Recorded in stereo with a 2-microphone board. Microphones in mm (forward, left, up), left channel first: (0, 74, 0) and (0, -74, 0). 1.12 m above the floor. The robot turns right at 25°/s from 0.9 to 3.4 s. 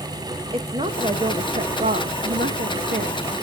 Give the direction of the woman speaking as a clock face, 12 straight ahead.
5 o'clock.